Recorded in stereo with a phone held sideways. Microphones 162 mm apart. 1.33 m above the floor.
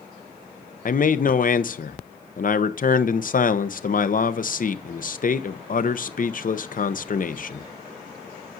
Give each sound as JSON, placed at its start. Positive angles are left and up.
{"t": 0.8, "sound": "a man speaking", "side_deg": 60, "distance_m": 0.6}